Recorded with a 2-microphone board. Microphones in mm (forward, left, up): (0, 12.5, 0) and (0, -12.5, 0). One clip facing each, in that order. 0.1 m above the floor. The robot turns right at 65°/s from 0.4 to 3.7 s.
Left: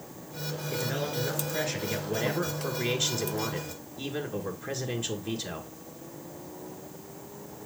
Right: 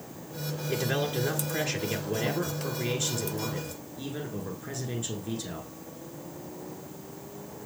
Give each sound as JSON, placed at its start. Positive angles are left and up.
{"t": 0.7, "sound": "a man speaking", "side_deg": -25, "distance_m": 1.3}